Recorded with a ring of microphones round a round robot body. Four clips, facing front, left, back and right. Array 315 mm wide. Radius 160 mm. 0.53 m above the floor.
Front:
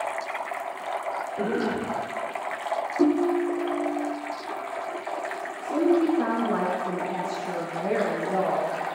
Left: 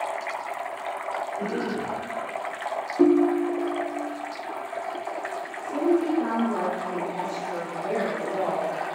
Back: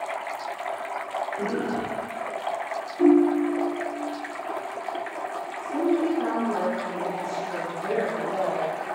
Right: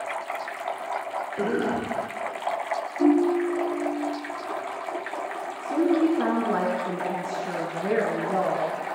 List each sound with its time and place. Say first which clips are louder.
1.4 s a cough: right 3 dB, front 3 dB; 65° right, 2.5 m
3.0 s a ringtone: left 1 dB, back 4 dB; 70° left, 1.1 m
5.6 s a woman speaking: right 1 dB, front 2 dB; 60° right, 6.5 m